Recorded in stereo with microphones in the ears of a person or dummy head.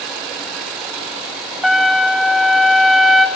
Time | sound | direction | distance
1.6 | a trumpet | 5° left (ahead or behind) | 2.0 m